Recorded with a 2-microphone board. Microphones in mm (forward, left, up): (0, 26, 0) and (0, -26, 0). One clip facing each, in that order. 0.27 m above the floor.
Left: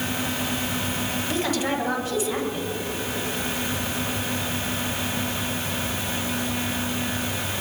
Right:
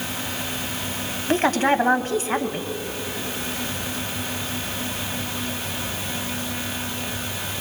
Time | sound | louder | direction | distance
1.3 | a woman speaking | right 8 dB | 45° right (ahead or behind) | 1.4 m